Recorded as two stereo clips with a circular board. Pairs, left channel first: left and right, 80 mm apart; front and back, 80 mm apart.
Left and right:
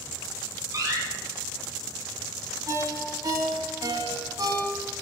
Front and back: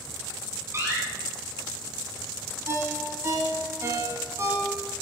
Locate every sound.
0.7 s a door slam: 130° right, 3 m
2.7 s a ringtone: 125° right, 1.5 m